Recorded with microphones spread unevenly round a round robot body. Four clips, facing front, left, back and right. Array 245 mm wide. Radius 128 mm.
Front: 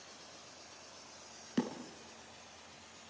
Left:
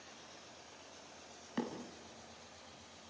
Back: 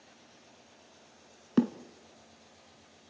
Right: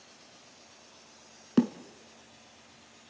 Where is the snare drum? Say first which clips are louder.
Right 15 dB, back 9 dB; 130° right, 1.2 m.